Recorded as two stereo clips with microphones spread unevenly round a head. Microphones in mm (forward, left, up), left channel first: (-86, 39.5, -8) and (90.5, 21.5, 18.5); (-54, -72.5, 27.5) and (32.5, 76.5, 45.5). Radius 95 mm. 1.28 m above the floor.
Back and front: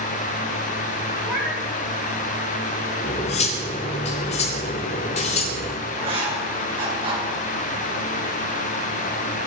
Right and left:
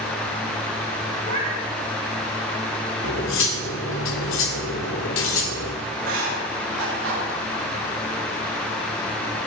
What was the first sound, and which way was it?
A cat meowing, 75° left.